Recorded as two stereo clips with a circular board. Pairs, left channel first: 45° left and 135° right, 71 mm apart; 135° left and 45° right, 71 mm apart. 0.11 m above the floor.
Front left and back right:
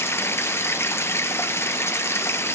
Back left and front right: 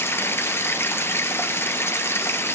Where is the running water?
85° left, 1.0 m.